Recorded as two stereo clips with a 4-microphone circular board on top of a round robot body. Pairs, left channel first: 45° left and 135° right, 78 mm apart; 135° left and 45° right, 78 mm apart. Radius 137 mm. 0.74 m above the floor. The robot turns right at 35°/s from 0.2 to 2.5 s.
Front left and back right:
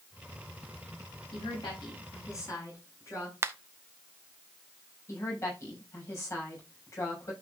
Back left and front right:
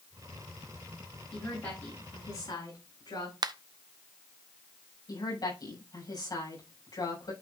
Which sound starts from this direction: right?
A finger snap, at 3.4 s.